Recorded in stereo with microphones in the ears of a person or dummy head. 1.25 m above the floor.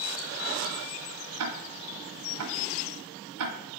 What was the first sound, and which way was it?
Ticking, 80° right.